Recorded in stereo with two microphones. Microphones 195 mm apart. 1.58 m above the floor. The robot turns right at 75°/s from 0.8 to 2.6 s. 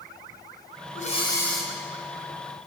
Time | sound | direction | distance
0.9 | breathing | 135° left | 4 m